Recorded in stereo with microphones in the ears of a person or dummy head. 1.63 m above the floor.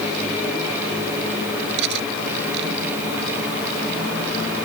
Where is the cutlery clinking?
70° right (ahead or behind).